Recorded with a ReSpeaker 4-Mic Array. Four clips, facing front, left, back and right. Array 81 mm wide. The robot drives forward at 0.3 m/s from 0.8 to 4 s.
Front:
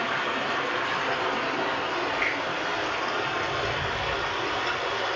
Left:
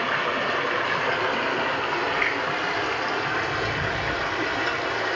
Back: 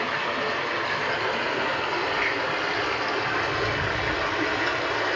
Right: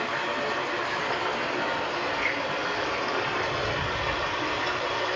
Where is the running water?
85° left, 1.1 m; by 5.2 s 130° left, 1.4 m.